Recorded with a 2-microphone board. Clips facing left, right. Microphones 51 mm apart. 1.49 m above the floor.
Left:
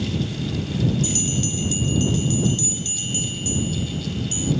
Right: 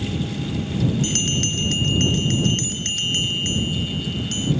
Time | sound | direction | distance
1.0 | a bell | 55° right (ahead or behind) | ?